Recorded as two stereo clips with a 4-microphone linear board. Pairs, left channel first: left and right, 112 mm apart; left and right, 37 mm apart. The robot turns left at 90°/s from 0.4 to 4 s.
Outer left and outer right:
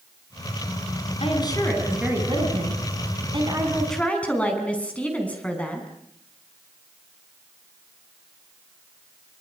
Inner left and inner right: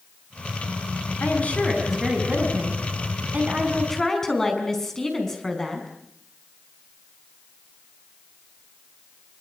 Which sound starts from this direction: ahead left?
A woman speaking, at 1.2 s.